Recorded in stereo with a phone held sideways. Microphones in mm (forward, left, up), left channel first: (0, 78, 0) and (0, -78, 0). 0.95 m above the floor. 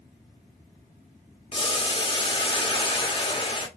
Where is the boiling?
30° left (ahead or behind), 1.0 m.